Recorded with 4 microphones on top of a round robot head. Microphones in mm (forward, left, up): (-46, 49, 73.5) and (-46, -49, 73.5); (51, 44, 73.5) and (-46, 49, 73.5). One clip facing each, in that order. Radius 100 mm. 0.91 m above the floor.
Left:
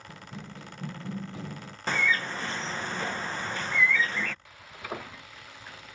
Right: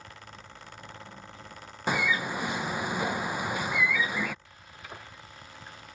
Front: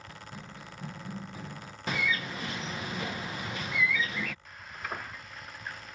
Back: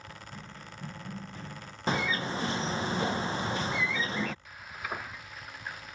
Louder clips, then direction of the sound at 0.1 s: Left 4 dB, front 2 dB; 80° left.